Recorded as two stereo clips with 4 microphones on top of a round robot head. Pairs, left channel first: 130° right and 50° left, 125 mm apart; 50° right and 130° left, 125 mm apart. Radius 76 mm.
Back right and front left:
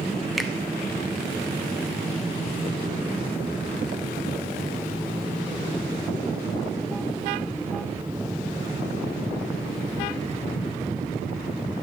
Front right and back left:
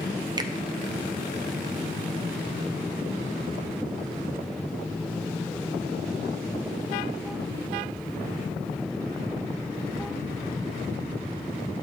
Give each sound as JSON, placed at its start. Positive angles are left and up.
{"t": 0.4, "sound": "a finger snap", "azimuth_deg": 140, "distance_m": 1.2}